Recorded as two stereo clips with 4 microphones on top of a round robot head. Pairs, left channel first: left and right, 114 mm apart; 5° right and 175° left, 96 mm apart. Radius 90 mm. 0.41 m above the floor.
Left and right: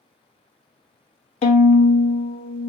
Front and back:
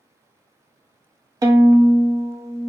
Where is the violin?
120° left, 0.5 m.